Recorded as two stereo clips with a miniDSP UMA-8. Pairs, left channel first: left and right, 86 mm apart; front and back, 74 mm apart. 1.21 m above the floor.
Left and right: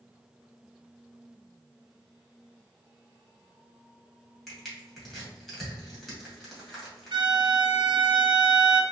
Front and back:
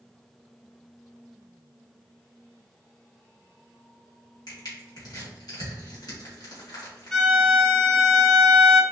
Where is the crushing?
5° left, 1.9 m.